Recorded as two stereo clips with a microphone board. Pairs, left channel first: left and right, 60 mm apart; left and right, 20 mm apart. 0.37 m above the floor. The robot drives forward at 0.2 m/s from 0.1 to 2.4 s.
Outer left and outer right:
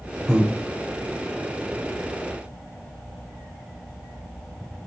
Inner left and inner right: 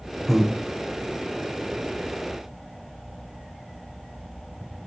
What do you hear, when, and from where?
0.3 s breathing: 15° right (ahead or behind), 0.7 m; by 0.5 s 20° right (ahead or behind), 0.7 m